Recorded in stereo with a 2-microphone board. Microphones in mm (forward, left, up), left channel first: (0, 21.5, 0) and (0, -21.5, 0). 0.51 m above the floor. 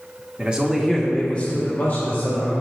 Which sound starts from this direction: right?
A man speaking, at 0.4 s.